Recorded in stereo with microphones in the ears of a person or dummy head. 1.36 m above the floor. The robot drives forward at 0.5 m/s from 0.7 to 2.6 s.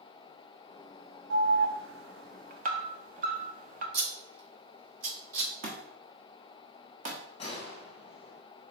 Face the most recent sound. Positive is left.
turn(degrees=35)  # may be behind; listen again after turning